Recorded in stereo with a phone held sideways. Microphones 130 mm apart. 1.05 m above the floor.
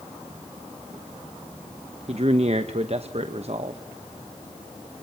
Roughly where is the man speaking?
Right.